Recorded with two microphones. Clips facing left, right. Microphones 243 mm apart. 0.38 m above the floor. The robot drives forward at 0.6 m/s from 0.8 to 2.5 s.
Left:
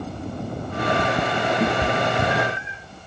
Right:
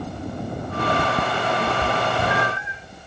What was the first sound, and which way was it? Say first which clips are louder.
A cat meowing: left 2 dB; 45° left (ahead or behind).